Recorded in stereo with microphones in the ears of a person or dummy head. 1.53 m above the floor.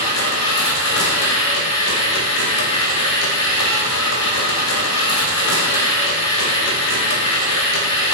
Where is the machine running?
80° left, 0.8 m.